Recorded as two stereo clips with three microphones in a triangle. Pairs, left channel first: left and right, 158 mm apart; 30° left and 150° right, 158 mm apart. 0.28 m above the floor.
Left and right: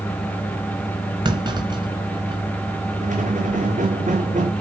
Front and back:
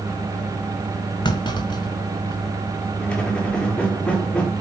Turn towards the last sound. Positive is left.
turn(degrees=-55)